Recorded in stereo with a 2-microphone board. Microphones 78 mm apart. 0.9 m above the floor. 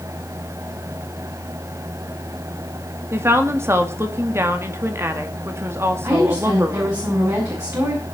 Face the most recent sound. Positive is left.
turn(degrees=-45)  # may be behind; listen again after turning